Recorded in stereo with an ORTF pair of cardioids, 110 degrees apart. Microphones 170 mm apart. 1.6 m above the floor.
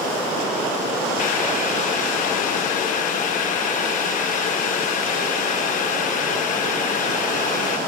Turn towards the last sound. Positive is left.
turn(degrees=50)